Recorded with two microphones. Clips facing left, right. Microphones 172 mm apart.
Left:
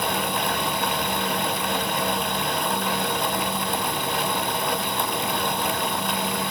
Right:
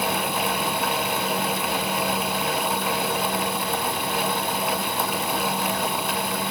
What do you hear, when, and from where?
Only background noise.